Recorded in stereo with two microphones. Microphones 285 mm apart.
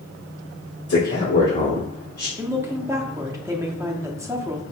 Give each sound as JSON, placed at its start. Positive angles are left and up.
{"t": 0.9, "sound": "a man speaking", "side_deg": 60, "distance_m": 1.9}
{"t": 2.4, "sound": "a woman speaking", "side_deg": -10, "distance_m": 0.7}